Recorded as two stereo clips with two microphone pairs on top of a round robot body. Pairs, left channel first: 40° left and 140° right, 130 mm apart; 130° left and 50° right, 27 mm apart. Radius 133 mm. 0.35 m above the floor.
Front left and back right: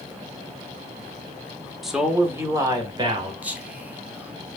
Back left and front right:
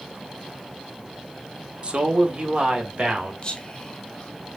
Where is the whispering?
135° left, 1.1 m.